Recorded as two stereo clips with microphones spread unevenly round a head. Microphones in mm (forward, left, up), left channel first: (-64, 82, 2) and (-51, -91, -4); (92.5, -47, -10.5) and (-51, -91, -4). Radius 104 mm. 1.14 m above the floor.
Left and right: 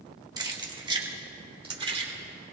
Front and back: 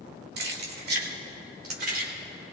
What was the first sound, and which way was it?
Keys jangling, 155° right.